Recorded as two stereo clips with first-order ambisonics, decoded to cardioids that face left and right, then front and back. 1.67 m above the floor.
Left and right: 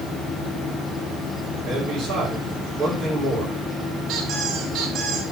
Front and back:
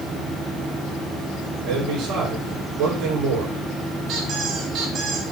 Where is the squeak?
140° right, 2.5 m.